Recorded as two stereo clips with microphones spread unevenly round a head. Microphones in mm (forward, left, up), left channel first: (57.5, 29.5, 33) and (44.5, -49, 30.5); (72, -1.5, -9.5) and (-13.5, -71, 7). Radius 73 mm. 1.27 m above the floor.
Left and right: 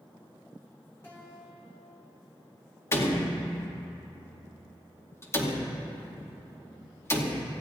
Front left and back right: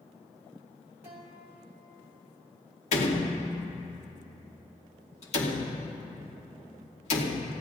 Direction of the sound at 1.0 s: 155° left.